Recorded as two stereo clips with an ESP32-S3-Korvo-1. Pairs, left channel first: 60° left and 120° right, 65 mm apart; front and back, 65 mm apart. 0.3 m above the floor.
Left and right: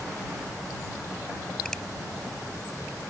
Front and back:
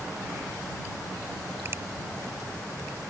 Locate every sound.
1.6 s a finger snap: 140° left